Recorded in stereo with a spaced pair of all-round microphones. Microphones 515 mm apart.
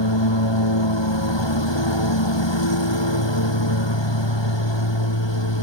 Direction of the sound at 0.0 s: 55° left (ahead or behind).